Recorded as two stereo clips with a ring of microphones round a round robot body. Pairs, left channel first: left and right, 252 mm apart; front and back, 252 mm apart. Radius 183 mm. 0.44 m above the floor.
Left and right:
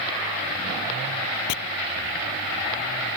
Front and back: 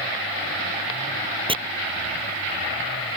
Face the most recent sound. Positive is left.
turn(degrees=110)